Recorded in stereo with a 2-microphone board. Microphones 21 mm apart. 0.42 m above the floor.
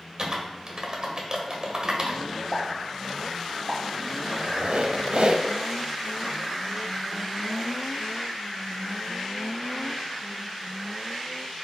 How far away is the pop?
About 1.7 m.